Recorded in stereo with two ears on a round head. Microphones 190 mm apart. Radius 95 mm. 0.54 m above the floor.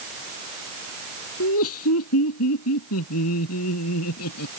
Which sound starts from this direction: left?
Laughter, at 1.4 s.